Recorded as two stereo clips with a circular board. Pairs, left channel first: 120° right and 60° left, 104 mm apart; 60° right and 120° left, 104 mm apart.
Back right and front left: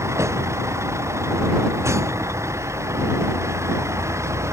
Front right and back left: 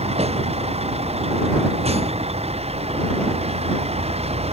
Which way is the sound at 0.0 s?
125° left.